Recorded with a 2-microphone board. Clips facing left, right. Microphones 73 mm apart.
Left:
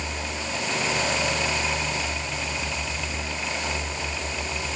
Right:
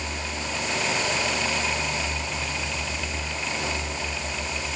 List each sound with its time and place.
Only background noise.